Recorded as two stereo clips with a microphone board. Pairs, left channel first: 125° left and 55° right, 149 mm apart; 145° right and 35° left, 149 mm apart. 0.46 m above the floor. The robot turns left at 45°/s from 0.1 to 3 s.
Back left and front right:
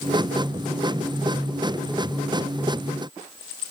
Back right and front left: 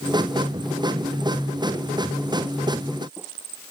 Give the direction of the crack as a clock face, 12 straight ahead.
I don't hear a crack.